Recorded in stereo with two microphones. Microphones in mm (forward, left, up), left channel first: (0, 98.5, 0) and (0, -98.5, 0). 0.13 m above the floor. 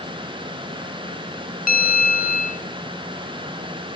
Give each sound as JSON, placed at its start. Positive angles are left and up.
{"t": 1.7, "sound": "a bell", "side_deg": 45, "distance_m": 0.5}